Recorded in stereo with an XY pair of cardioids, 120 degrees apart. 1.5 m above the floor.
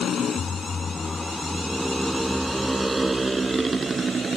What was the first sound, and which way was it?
A motorcycle, 45° left.